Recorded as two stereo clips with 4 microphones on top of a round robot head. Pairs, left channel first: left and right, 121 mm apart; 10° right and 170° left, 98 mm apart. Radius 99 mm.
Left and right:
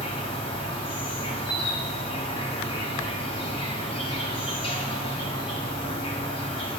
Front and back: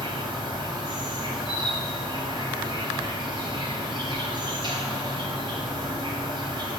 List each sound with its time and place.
0.0 s an insect: 135° left, 3 m